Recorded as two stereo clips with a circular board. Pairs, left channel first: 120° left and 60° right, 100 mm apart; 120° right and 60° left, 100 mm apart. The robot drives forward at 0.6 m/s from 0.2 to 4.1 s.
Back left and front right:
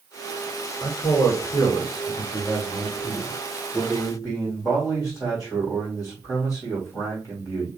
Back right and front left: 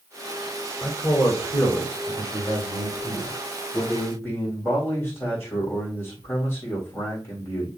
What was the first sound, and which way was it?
A man speaking, 170° left.